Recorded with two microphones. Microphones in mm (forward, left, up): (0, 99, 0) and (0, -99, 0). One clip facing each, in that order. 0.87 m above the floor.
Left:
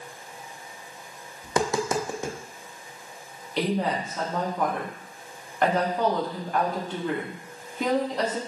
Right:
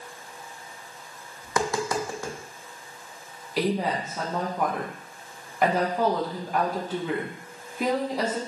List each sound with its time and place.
1.4 s tapping: 20° left (ahead or behind), 0.5 m
3.6 s a woman speaking: 5° right (ahead or behind), 0.8 m